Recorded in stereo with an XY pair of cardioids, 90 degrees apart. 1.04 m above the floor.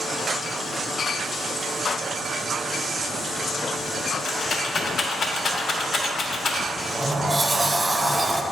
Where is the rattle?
45° left, 1.4 m.